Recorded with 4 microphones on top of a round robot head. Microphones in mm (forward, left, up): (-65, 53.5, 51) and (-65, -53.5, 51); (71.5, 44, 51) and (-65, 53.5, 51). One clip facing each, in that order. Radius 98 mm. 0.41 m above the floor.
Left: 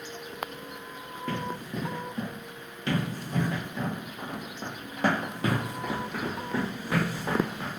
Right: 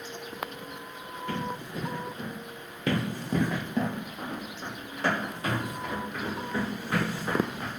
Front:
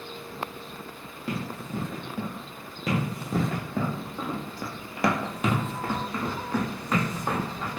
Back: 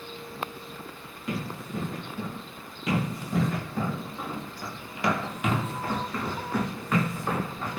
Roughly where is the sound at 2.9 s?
Right.